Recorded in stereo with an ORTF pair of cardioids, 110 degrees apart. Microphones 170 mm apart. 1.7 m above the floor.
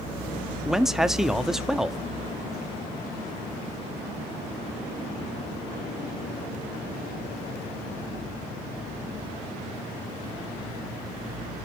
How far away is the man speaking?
About 0.7 m.